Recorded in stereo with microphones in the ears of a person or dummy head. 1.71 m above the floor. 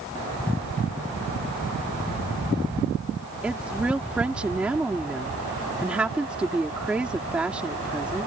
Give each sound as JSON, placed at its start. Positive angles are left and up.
{"t": 3.4, "sound": "a woman speaking", "side_deg": -10}